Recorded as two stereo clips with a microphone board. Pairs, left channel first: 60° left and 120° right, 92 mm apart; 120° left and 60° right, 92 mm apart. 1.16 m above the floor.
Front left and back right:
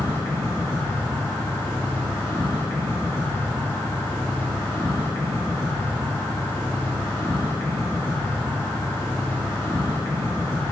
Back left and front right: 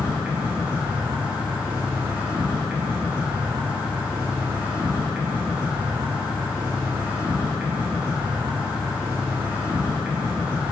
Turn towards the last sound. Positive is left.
turn(degrees=10)